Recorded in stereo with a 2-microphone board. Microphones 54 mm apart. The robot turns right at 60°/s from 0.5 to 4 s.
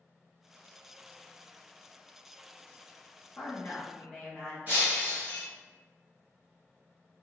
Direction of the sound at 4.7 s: 30° right (ahead or behind).